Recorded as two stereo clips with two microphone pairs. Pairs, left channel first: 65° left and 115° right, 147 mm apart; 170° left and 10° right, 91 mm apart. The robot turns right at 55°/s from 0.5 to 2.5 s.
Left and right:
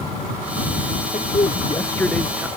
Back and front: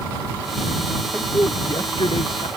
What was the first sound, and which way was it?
A man speaking, 95° left.